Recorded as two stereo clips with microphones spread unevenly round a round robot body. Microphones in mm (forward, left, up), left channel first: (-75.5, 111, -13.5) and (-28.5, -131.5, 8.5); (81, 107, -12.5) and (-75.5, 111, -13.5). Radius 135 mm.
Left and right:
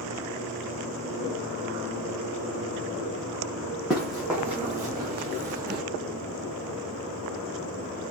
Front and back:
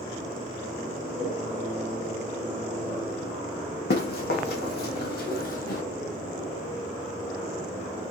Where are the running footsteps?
10° left, 1.5 m; by 5.8 s 35° right, 0.8 m.